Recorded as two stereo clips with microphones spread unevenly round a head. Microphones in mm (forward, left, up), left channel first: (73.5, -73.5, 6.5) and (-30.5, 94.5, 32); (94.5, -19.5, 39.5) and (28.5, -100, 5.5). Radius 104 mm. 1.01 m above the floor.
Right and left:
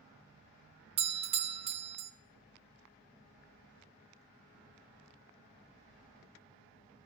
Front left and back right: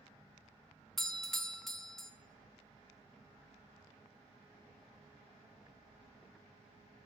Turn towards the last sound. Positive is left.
turn(degrees=170)